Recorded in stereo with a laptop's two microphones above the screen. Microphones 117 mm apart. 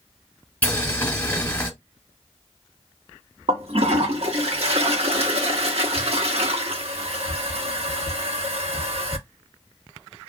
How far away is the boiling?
About 1.4 m.